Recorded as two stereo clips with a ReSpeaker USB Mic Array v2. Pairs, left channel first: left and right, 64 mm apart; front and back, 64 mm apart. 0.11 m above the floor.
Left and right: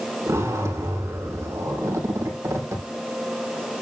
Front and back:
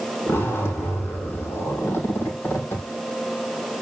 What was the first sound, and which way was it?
A zipper, 50° right.